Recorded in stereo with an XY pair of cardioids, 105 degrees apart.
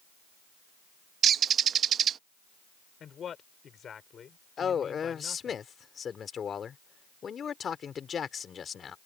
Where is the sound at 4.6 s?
45° left.